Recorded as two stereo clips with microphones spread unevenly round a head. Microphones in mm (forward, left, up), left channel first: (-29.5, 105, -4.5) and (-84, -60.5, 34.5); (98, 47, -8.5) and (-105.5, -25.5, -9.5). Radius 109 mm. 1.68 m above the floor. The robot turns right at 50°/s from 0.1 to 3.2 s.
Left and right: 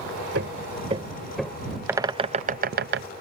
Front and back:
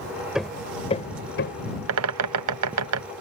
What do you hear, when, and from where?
0.3 s hammering: 75° right; by 1.6 s 10° right
1.9 s a bird: 175° left; by 3.1 s 125° right